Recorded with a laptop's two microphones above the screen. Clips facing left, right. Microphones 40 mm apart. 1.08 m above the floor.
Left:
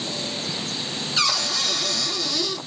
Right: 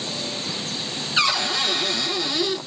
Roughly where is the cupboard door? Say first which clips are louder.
Right 3 dB; right.